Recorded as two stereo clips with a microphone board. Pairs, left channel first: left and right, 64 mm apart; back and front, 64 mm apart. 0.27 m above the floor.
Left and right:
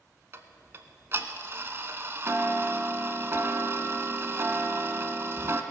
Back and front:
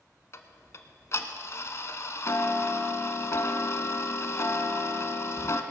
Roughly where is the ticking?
Behind right.